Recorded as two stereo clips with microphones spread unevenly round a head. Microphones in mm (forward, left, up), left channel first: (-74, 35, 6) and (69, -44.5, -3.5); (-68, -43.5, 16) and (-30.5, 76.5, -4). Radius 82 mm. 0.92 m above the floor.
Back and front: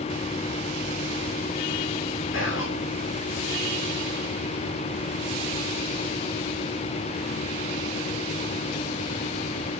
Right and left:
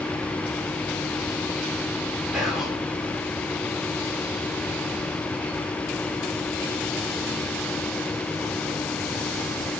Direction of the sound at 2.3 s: 160° left.